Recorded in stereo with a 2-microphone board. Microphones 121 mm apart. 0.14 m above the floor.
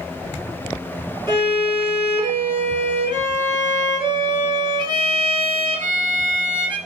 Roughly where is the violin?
Right.